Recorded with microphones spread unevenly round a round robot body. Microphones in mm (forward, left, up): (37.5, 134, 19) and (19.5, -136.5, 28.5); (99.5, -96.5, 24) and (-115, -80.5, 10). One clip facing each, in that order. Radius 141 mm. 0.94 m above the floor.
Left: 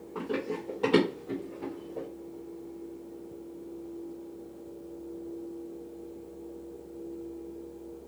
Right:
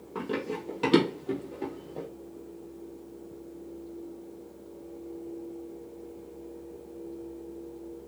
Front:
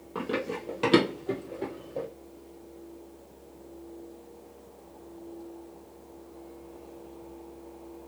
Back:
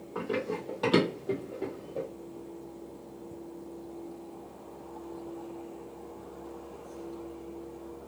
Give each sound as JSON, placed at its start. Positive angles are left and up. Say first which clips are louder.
{"t": 0.1, "sound": "running footsteps", "louder": "even, even", "azimuth_deg": -40, "distance_m": 1.6}